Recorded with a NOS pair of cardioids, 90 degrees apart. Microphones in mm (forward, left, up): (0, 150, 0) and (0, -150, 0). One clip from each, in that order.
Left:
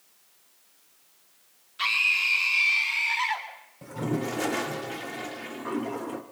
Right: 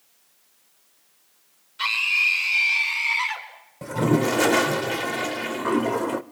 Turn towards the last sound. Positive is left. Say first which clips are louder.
# right 9 dB
turn(degrees=-45)